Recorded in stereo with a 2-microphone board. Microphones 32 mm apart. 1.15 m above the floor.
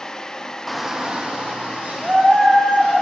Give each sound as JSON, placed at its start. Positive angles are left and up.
{"t": 0.7, "sound": "a shout", "side_deg": 10, "distance_m": 0.5}